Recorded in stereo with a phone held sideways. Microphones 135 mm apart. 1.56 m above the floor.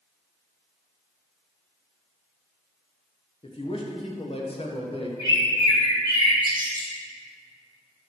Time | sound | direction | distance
3.4 | a man speaking | 45° left (ahead or behind) | 1.2 m
5.2 | a bird | 35° right (ahead or behind) | 1.7 m